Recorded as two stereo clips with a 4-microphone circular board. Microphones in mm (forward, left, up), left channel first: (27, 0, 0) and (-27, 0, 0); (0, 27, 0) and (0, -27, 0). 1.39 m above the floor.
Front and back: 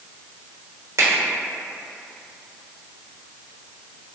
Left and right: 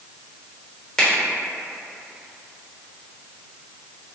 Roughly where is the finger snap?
Behind.